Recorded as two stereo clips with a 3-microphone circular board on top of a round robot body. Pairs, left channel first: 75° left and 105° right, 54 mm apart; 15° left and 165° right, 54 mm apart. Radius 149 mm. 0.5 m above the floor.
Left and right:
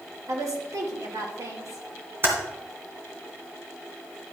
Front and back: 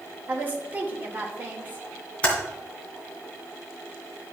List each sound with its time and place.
0.3 s a woman speaking: 110° right, 2.5 m
2.2 s typing on a keyboard: 55° right, 2.5 m